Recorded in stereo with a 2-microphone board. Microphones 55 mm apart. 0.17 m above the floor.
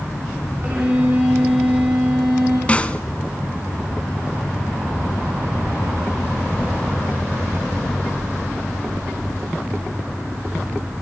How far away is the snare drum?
About 0.8 m.